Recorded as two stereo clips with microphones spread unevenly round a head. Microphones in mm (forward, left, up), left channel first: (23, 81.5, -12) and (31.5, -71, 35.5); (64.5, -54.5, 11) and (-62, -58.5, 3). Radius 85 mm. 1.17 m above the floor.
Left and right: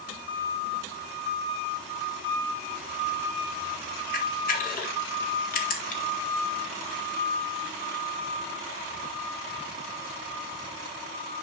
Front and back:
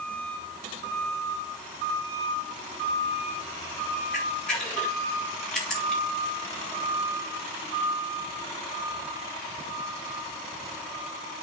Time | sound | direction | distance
4.1 | a camera shutter | 85° left | 1.7 m